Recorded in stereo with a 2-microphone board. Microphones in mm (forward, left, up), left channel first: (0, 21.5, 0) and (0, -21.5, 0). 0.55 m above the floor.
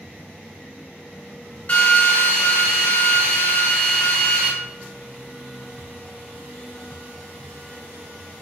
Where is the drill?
40° left (ahead or behind), 1.2 m.